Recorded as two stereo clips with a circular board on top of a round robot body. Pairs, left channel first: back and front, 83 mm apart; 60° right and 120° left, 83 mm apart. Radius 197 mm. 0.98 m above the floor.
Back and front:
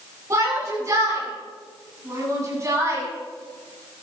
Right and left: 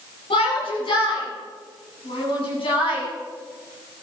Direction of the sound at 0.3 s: 55° right.